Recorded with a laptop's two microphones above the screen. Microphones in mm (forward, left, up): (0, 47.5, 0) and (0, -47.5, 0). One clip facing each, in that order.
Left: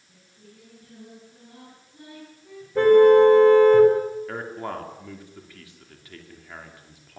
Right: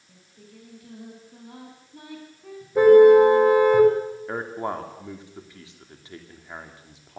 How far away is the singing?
About 8 m.